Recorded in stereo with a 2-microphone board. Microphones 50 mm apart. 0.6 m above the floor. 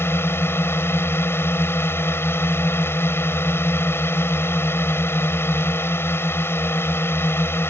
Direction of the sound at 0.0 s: 55° left (ahead or behind).